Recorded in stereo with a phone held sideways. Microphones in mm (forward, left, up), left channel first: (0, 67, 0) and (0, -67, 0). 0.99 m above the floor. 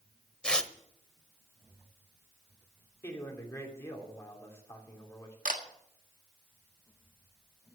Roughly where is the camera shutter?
Right.